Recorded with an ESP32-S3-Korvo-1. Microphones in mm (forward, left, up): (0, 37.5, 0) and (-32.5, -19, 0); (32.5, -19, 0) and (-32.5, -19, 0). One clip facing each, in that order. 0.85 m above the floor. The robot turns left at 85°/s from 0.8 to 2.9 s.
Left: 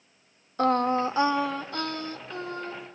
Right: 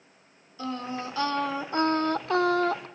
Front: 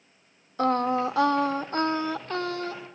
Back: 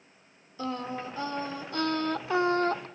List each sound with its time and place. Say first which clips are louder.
0.6 s singing: left 10 dB, front 10 dB; 30° left, 1.0 m; by 2.9 s 145° right, 1.0 m